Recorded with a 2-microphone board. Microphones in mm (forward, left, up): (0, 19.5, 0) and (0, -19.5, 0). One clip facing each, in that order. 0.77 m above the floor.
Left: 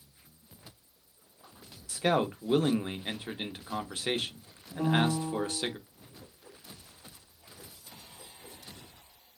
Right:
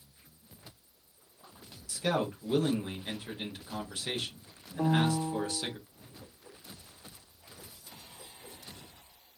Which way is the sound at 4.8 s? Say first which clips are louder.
Even; 25° right (ahead or behind).